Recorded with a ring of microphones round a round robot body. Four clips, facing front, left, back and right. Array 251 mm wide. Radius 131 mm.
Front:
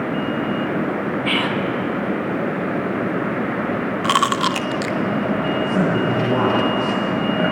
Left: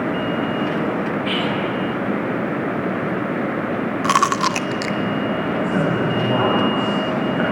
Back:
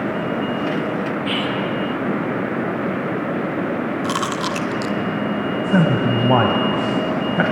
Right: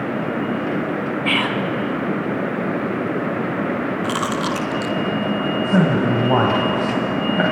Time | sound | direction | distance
1.2 | whispering | 65° right | 2.5 m
4.0 | chewing | 55° left | 0.6 m
5.6 | a man speaking | 155° right | 3 m